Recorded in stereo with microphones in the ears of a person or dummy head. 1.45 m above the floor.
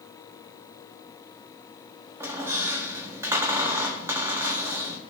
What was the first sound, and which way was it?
A squeak, 10° right (ahead or behind).